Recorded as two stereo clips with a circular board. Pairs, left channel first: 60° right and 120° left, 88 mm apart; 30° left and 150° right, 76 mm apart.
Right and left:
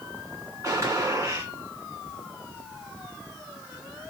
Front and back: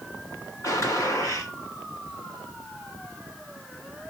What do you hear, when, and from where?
0.6 s a gunshot: 70° left, 1.9 m